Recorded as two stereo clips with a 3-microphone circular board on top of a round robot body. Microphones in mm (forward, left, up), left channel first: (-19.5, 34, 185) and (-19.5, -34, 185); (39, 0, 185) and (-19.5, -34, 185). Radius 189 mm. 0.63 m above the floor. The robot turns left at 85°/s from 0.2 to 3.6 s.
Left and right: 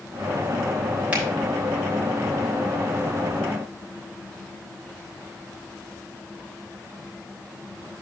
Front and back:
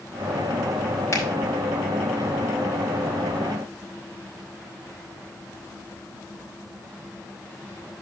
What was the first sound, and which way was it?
A finger snap, 20° right.